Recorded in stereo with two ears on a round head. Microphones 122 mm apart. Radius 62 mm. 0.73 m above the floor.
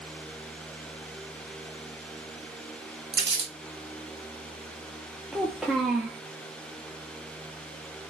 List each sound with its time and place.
3.1 s crumpling: 30° right (ahead or behind), 1.0 m
5.3 s a child speaking: centre (ahead or behind), 0.5 m